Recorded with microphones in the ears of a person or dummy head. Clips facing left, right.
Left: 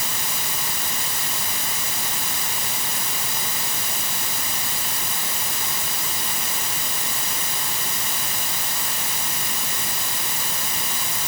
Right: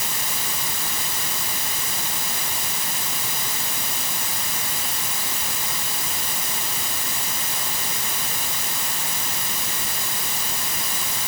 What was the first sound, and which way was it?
Only background noise.